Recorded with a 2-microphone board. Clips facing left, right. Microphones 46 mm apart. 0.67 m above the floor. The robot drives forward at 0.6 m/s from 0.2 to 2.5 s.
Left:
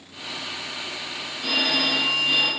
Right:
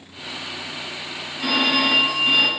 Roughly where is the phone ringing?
Right.